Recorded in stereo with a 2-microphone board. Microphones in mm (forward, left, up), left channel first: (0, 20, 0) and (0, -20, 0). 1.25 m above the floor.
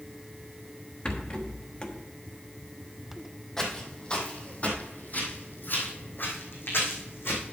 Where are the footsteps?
15° left (ahead or behind), 2.5 m; by 7.4 s 70° left (ahead or behind), 4 m.